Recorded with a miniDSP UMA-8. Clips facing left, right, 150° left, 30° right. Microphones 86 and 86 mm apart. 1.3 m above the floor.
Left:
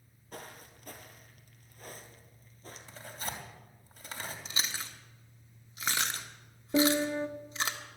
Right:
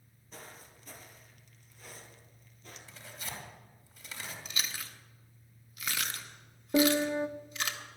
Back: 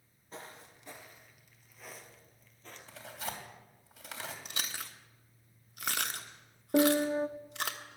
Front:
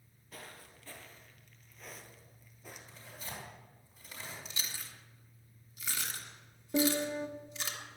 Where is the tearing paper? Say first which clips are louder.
Left 4 dB, back 8 dB; 130° left, 2.5 m.